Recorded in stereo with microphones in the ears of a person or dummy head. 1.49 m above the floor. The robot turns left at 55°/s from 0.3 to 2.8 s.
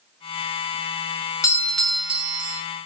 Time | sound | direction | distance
1.4 | a doorbell | 25° left | 1.1 m